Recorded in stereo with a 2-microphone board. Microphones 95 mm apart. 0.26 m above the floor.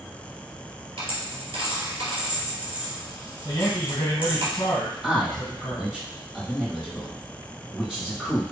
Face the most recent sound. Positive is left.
turn(degrees=-10)  # may be behind; listen again after turning